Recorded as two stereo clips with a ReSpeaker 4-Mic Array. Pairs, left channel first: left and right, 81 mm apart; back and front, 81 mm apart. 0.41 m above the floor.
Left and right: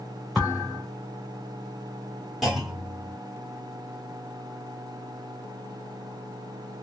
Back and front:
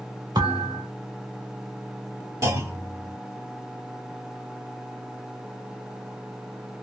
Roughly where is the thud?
Ahead.